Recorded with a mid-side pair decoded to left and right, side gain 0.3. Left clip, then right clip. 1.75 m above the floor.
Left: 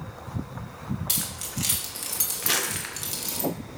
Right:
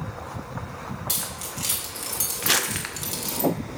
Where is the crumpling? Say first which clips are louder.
Right 4 dB; 45° right, 0.9 m.